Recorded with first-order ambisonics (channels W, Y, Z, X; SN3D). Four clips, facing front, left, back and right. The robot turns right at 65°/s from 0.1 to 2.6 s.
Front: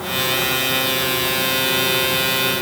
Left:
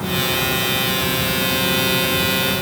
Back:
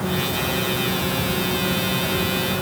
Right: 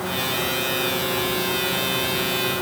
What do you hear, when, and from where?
Only background noise.